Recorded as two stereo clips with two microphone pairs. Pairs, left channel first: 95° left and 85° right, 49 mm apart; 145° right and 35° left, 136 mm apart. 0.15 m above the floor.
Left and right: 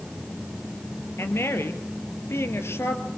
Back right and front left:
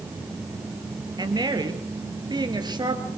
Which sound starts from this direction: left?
A woman speaking, at 1.2 s.